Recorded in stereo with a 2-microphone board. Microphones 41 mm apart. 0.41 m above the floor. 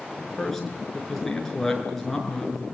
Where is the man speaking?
10° left (ahead or behind), 6.5 m.